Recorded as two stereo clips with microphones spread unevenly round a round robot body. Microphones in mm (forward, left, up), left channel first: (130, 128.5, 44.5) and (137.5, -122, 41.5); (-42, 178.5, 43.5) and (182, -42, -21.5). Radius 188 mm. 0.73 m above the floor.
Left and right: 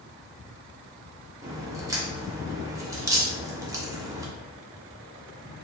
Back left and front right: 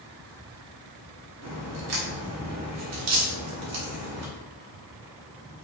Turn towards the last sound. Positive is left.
turn(degrees=-10)